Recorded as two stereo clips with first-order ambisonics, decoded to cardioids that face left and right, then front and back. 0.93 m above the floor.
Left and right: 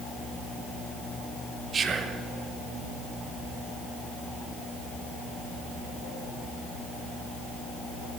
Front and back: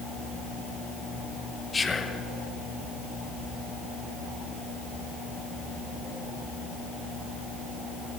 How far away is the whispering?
About 0.7 m.